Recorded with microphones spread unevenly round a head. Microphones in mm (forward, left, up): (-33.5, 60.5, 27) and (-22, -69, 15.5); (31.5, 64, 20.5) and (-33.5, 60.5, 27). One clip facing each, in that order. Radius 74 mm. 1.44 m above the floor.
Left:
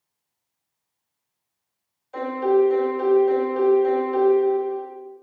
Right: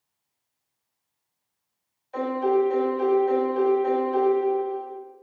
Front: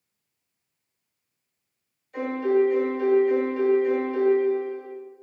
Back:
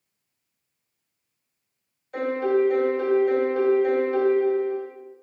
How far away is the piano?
About 1.7 m.